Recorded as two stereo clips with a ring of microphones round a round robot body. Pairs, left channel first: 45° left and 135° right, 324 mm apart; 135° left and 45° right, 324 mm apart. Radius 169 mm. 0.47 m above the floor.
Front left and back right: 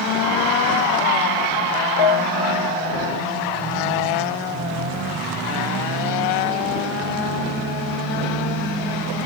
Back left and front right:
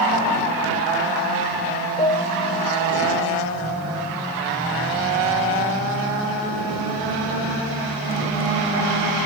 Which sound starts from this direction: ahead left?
A piano, at 2.0 s.